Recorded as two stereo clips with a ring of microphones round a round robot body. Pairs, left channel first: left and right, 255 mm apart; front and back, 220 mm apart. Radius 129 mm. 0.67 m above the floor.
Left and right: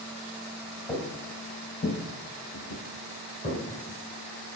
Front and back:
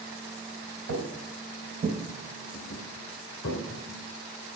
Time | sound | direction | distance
0.9 | footsteps | 165° left | 1.5 m